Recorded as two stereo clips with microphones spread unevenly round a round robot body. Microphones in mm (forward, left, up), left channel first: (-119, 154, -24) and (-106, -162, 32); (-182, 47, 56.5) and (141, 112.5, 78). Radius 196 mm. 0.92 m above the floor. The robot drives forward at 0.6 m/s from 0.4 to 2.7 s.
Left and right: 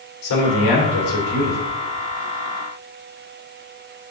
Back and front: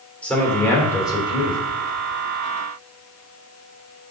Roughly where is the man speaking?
Left.